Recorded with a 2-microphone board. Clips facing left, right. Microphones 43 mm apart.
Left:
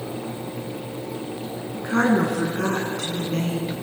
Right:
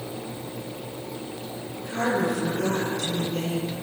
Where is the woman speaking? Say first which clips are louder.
Left 6 dB; 70° left (ahead or behind), 9 m.